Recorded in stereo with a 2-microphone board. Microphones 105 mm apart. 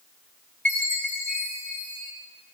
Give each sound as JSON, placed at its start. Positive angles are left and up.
{"t": 0.7, "sound": "a chime", "side_deg": 15, "distance_m": 3.5}